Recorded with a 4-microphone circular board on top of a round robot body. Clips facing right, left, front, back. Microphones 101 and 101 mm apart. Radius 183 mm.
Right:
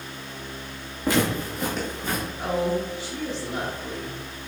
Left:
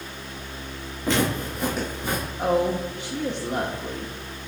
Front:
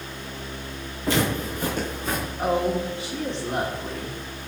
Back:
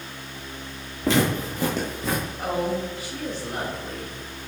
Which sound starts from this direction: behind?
Footsteps, at 1.0 s.